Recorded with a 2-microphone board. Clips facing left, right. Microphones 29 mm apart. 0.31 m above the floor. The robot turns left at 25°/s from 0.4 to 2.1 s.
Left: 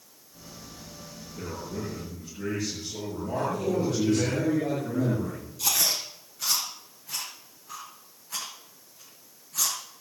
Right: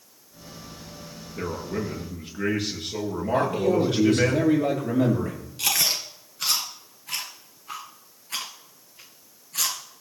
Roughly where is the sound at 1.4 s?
Right.